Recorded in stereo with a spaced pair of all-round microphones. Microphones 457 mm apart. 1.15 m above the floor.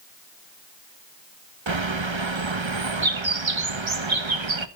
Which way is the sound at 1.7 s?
75° right (ahead or behind).